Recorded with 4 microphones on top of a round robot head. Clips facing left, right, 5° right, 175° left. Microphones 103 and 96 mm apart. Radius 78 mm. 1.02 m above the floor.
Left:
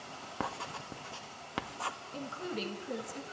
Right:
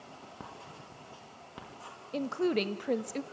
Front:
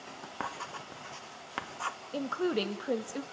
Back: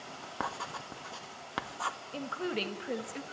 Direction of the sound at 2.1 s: 75° right.